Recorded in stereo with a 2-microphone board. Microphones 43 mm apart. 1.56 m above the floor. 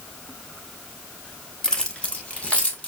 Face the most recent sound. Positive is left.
turn(degrees=30)  # may be behind; listen again after turning